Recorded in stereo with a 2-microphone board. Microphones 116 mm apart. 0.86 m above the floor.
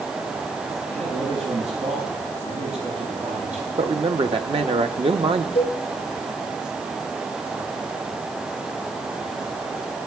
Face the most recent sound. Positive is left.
turn(degrees=65)  # may be behind; listen again after turning